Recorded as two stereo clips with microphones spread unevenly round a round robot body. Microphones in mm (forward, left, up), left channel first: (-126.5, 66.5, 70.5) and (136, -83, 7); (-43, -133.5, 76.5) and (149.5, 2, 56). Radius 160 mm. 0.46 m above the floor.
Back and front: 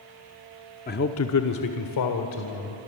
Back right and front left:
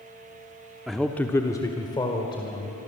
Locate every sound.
0.9 s a man speaking: 110° left, 1.0 m; by 2.8 s 145° left, 3 m